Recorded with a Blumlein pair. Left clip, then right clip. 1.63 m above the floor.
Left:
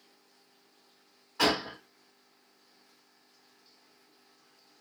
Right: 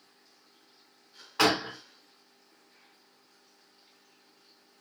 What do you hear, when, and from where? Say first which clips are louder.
1.4 s a gunshot: right 2 dB; 30° right, 1.0 m